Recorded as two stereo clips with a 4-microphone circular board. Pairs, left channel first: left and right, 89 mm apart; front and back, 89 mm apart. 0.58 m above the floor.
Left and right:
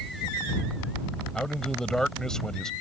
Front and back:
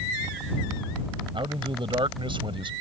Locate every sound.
1.3 s a man speaking: 175° left